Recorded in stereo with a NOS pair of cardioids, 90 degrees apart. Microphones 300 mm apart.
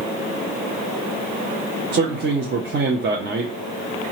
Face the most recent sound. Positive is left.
turn(degrees=-35)